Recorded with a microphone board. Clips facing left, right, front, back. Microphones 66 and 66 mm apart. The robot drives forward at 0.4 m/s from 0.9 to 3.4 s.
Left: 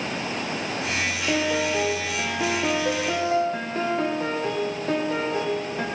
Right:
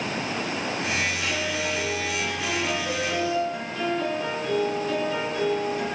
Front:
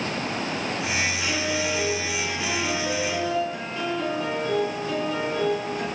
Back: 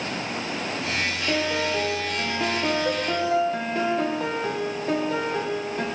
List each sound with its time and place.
1.3 s a piano: 125° left, 3 m; by 5.8 s 135° left, 3.5 m